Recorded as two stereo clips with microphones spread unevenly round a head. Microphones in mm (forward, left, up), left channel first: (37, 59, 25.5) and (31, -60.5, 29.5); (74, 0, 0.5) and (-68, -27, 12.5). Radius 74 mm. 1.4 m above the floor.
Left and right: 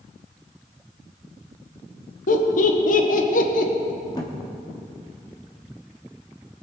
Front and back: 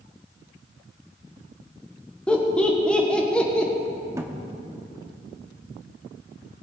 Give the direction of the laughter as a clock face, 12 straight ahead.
9 o'clock.